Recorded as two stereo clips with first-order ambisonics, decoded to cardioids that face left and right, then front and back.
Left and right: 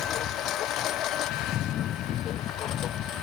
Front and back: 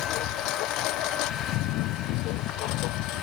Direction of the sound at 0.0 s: 35° left.